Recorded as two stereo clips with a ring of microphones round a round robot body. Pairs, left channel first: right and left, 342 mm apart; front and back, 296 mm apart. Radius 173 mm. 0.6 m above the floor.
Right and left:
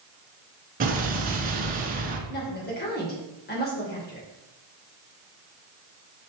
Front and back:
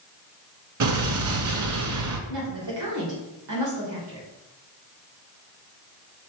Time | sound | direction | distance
0.8 | an explosion | 155° left | 1.2 m
2.3 | a woman speaking | 150° right | 3 m